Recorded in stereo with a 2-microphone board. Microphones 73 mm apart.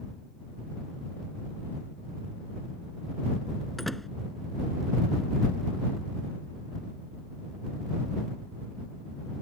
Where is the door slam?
Centre (ahead or behind).